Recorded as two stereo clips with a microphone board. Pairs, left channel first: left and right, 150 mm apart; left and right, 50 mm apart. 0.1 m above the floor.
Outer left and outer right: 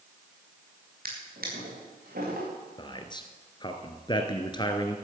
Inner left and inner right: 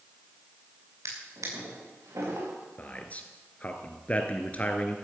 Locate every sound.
1.1 s a drawer: 85° right, 6 m
2.8 s a man speaking: 30° left (ahead or behind), 1.8 m